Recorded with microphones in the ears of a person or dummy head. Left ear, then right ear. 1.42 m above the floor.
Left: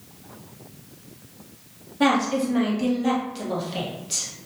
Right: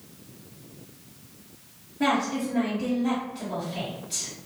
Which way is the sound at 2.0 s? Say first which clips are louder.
Left 4 dB; 55° left (ahead or behind).